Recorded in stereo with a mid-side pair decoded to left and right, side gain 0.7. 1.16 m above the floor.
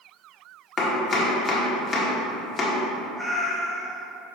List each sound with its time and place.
0.8 s chopping: 20° left, 1.7 m
3.2 s a cat meowing: 15° right, 1.3 m